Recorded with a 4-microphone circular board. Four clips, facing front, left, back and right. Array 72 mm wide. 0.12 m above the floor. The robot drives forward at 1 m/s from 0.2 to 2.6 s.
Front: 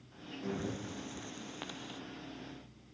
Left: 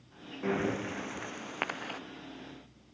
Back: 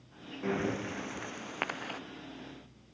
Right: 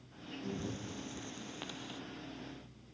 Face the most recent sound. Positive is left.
turn(degrees=140)